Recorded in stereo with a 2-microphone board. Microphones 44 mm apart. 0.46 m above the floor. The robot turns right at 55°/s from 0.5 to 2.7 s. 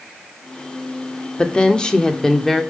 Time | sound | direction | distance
1.4 | a woman speaking | 25° left (ahead or behind) | 0.8 m